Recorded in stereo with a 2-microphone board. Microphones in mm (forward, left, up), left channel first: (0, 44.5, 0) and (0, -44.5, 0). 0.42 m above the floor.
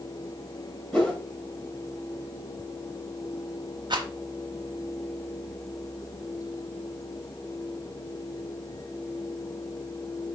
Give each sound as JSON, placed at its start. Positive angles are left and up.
{"t": 0.9, "sound": "a whoosh", "side_deg": 10, "distance_m": 1.3}
{"t": 3.9, "sound": "a rattle", "side_deg": -55, "distance_m": 1.1}